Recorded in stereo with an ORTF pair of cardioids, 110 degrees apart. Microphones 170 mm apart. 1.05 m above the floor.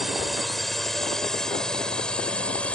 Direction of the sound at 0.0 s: Straight ahead.